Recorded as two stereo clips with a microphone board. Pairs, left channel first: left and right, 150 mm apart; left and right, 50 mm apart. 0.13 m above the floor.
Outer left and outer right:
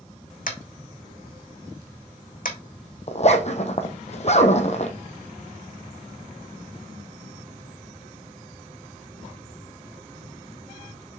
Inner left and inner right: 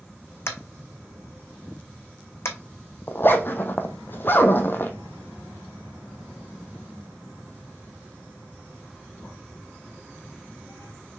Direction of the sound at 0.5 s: 75° left (ahead or behind).